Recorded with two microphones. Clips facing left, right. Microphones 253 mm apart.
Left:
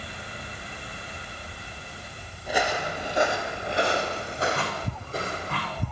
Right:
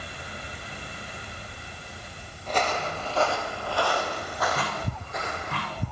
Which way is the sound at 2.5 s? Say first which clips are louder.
Left 1 dB; 10° left (ahead or behind).